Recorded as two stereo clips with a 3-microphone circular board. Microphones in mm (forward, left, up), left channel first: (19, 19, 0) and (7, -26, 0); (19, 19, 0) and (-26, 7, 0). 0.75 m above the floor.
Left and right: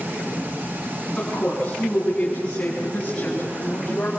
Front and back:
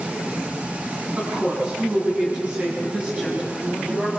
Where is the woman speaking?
140° left, 6.5 m; by 4.1 s 130° left, 5 m.